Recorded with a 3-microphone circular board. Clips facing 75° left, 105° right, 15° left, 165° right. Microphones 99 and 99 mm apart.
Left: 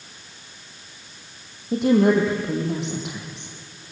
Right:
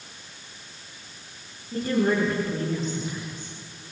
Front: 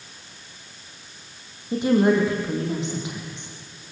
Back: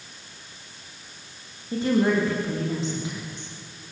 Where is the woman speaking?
85° left, 5.5 m.